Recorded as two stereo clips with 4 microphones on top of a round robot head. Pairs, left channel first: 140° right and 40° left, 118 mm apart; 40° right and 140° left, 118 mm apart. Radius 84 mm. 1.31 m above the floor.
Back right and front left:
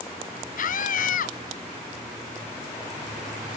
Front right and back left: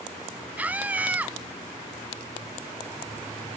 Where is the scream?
145° right.